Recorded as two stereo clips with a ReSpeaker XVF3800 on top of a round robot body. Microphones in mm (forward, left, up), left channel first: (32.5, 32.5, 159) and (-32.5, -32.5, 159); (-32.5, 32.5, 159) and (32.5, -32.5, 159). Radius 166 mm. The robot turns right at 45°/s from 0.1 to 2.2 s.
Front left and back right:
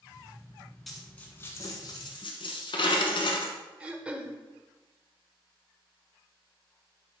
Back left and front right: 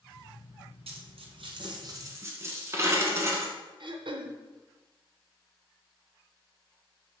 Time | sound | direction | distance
0.9 | a dropped coin | 45° right | 1.1 m
3.8 | throat clearing | 55° right | 1.0 m